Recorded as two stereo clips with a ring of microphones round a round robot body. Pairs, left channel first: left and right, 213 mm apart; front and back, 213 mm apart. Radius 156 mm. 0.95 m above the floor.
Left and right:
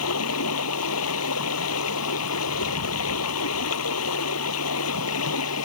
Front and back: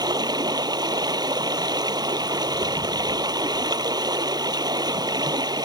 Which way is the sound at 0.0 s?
110° left.